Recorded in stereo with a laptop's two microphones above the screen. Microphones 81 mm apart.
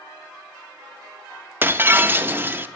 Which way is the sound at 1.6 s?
25° right (ahead or behind).